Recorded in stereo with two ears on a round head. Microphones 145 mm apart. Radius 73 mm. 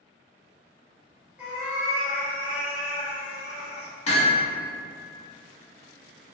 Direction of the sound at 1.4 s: 5° right (ahead or behind).